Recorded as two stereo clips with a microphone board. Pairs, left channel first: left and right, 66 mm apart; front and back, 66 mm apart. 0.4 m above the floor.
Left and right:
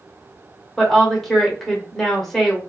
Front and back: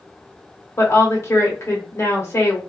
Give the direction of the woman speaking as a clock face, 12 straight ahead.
12 o'clock.